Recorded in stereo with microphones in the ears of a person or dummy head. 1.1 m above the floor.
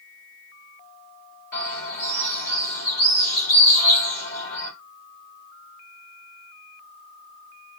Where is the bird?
40° left (ahead or behind), 2.5 m.